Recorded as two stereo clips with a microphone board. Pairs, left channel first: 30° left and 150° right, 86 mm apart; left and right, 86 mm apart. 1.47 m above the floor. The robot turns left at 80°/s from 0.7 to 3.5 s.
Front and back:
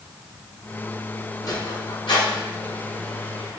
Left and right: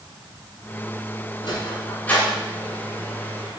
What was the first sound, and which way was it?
A sliding door, 75° left.